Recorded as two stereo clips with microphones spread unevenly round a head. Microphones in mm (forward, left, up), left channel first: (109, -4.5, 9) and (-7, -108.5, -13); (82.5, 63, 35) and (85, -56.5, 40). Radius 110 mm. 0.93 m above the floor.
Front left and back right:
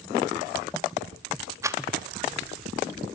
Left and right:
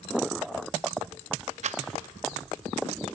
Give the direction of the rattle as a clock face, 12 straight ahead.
2 o'clock.